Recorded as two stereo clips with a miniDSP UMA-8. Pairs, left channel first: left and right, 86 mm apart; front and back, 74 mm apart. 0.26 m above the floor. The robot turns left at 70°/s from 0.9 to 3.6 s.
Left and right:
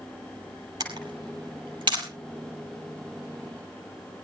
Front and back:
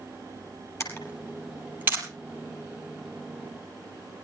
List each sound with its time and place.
0.8 s a camera shutter: 50° right, 5.5 m; by 2.1 s 130° right, 5.5 m